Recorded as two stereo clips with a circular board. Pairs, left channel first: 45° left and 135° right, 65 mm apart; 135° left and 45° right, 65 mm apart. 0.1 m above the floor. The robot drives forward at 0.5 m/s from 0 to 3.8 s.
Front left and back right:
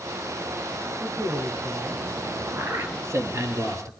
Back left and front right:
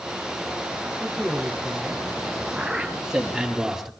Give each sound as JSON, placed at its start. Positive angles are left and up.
{"t": 1.0, "sound": "a man speaking", "azimuth_deg": -135, "distance_m": 4.5}
{"t": 2.6, "sound": "a man speaking", "azimuth_deg": -115, "distance_m": 2.0}